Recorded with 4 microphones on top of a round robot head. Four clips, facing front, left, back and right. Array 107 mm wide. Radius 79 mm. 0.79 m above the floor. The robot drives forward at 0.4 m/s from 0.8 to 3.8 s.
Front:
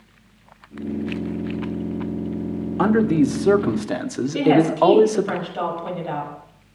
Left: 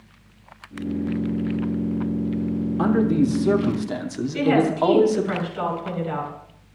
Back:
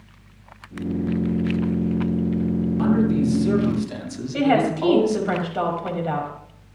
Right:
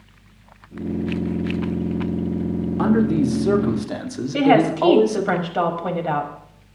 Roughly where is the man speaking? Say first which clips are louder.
Right 1 dB, front 4 dB; ahead.